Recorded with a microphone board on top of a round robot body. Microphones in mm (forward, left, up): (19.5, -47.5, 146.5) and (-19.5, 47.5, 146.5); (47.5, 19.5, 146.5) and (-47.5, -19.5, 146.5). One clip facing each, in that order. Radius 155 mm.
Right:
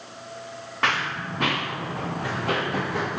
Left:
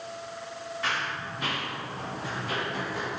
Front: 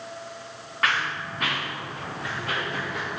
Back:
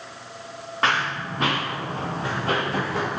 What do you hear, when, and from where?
0.8 s running footsteps: 95° right, 4.5 m; by 3.2 s 105° right, 3 m